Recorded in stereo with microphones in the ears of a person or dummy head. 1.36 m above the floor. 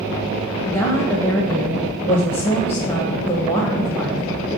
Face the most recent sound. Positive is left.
turn(degrees=25)  # may be behind; listen again after turning